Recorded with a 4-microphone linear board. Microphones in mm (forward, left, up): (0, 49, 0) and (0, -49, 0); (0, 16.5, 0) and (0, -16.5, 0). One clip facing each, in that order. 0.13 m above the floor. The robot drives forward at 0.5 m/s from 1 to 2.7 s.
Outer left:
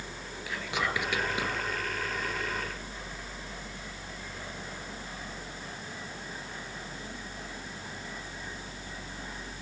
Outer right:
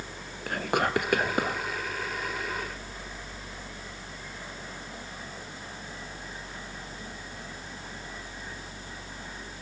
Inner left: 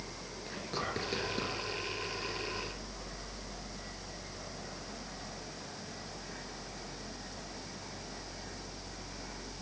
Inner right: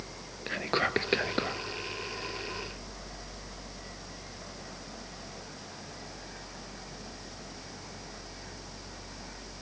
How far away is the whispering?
About 1.8 m.